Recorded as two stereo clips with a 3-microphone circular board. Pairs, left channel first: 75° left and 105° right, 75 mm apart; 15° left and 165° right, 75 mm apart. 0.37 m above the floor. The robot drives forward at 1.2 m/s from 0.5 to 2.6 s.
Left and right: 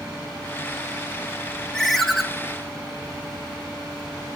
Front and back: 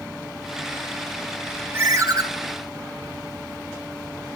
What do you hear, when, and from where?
1.7 s a ringtone: 155° left, 1.2 m; by 2.2 s 165° left, 1.7 m